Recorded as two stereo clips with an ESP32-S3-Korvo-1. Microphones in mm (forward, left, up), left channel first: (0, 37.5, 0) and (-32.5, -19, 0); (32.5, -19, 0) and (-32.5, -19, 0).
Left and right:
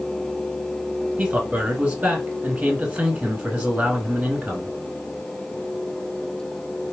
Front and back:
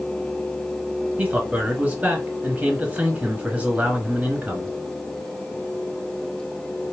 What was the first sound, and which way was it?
A man speaking, 160° right.